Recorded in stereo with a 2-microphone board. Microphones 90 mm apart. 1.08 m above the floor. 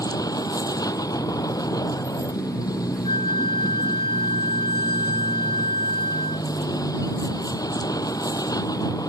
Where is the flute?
60° left (ahead or behind).